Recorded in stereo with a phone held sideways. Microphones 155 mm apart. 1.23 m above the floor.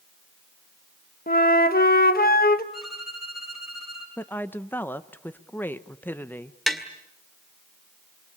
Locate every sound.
1.3 s a flute: 70° left (ahead or behind), 1.4 m
2.7 s a violin: centre (ahead or behind), 7 m
4.2 s a woman speaking: 10° left (ahead or behind), 1.0 m
6.7 s tapping: centre (ahead or behind), 2.0 m